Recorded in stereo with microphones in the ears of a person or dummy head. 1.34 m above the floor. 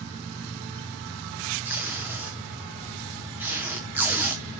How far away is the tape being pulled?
About 0.9 m.